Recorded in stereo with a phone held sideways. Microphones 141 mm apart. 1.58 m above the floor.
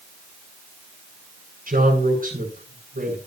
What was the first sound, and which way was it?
A man speaking, 70° right (ahead or behind).